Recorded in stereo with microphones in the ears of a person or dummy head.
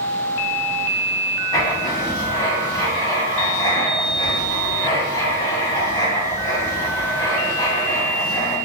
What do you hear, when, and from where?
1.5 s writing: 25° left (ahead or behind), 1.7 m